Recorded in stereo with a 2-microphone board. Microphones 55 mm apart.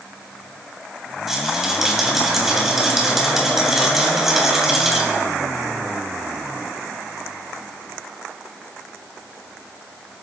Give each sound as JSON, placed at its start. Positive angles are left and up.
{"t": 1.3, "sound": "a rattle", "side_deg": -5, "distance_m": 2.5}